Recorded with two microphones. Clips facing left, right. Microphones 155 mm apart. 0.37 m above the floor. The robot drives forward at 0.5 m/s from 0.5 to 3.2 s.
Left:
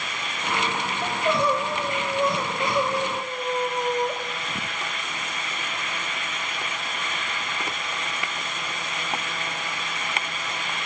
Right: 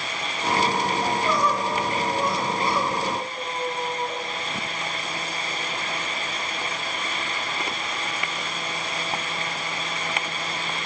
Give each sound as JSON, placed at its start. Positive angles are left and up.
{"t": 1.0, "sound": "crying", "side_deg": 30, "distance_m": 1.2}